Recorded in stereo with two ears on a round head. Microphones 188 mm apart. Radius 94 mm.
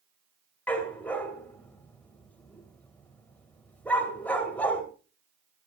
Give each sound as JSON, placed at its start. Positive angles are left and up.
{"t": 0.7, "sound": "a dog barking", "side_deg": 5, "distance_m": 2.5}